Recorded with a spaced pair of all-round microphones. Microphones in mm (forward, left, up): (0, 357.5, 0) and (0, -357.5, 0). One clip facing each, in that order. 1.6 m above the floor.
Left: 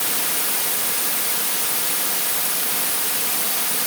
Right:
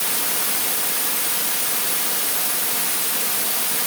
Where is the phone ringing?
I don't hear a phone ringing.